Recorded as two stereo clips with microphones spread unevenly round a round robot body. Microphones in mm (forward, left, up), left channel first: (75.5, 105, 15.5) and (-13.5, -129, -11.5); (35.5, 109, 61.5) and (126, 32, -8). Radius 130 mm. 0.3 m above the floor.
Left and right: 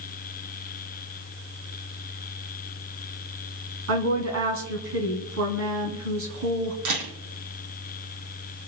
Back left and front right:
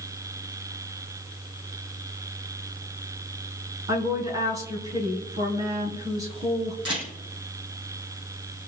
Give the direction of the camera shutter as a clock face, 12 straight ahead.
3 o'clock.